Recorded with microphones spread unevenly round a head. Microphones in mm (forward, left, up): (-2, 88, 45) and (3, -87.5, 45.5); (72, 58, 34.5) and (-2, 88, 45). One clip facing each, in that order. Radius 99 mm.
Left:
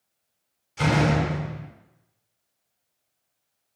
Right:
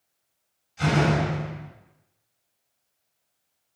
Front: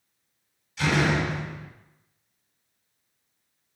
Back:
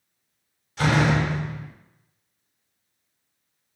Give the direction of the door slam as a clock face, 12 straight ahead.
8 o'clock.